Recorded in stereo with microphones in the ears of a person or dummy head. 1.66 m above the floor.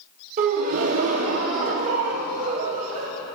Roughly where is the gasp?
Right.